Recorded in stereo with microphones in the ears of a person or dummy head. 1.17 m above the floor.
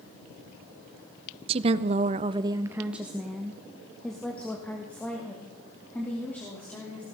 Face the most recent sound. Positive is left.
turn(degrees=5)  # may be behind; listen again after turning